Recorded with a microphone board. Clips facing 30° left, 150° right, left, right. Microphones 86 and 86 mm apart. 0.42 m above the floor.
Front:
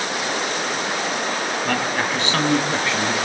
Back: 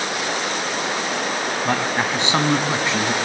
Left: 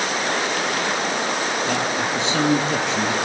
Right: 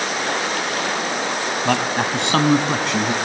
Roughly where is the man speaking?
Right.